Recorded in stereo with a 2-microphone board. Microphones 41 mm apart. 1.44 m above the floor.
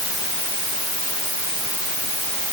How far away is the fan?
No fan in this recording.